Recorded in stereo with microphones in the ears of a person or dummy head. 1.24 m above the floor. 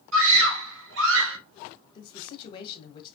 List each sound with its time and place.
0.1 s a scream: 75° right (ahead or behind), 1.6 m
1.9 s a man speaking: 25° left (ahead or behind), 1.6 m